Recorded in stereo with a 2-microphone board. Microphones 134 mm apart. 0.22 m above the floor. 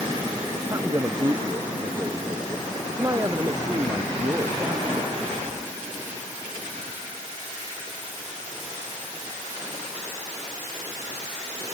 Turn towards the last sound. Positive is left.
turn(degrees=-25)  # may be behind; listen again after turning